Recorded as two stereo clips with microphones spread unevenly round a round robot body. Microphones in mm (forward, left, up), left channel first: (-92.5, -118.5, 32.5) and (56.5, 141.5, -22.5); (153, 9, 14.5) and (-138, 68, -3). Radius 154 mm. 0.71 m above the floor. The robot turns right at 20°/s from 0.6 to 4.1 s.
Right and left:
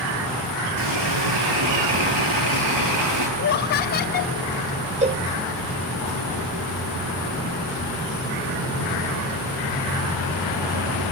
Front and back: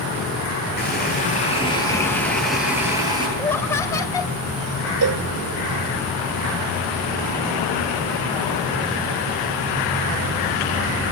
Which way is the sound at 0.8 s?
45° left.